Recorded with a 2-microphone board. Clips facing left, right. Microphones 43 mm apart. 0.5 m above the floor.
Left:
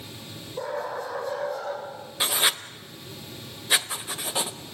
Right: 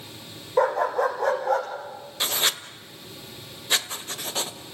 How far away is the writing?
About 0.7 m.